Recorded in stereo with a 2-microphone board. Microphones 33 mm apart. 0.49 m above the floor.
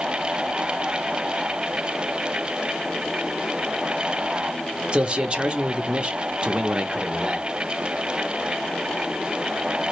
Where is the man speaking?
35° right (ahead or behind), 0.8 m.